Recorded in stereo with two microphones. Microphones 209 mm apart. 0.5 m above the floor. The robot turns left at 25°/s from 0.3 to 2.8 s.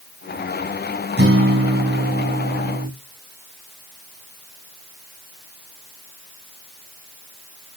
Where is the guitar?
75° right, 1.9 m; by 2.9 s 115° right, 1.9 m.